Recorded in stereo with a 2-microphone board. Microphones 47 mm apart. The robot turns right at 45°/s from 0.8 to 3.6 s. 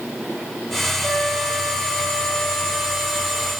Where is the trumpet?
135° right, 2 m; by 3.5 s 25° right, 2 m.